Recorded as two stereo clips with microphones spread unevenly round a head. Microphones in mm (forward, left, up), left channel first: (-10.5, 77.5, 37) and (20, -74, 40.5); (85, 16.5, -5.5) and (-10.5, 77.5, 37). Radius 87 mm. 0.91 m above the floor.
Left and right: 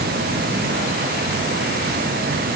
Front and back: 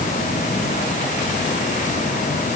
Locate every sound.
Only background noise.